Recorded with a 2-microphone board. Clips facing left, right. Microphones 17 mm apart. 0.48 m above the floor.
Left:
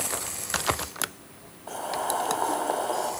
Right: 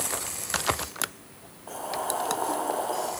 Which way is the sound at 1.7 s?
Centre (ahead or behind).